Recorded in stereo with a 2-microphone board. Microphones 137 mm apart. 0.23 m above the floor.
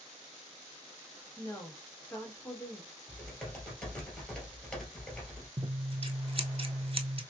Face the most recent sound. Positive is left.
turn(degrees=-45)  # may be behind; listen again after turning